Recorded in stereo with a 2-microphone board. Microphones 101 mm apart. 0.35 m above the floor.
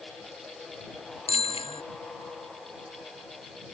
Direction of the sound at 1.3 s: 65° left (ahead or behind).